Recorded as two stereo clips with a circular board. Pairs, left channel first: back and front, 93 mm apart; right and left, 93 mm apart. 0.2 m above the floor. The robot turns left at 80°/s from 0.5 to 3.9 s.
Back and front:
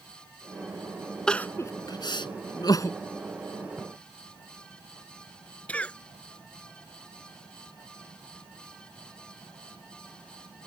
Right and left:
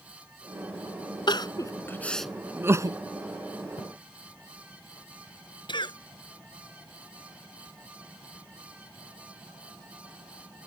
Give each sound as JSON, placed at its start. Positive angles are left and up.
{"t": 1.3, "sound": "crying", "azimuth_deg": -100}
{"t": 3.8, "sound": "a splash", "azimuth_deg": -85}
{"t": 5.7, "sound": "a cough", "azimuth_deg": -105}